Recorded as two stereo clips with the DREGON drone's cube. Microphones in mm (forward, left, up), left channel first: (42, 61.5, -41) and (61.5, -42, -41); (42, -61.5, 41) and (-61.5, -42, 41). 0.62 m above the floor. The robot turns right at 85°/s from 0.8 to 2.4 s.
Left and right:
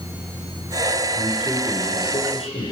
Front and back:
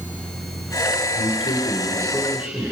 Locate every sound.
1.1 s a man speaking: 20° right, 8 m; by 2.7 s 85° left, 8 m